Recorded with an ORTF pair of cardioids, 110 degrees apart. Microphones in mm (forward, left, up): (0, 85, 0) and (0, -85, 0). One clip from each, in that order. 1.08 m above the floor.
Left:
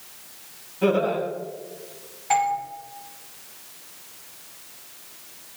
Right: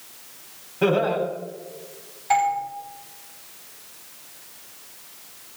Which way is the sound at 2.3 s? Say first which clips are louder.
Right 1 dB; 10° right.